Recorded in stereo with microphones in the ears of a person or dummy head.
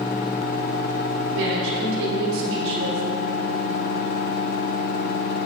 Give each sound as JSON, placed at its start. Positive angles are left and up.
{"t": 1.3, "sound": "a woman speaking", "side_deg": -75, "distance_m": 4.0}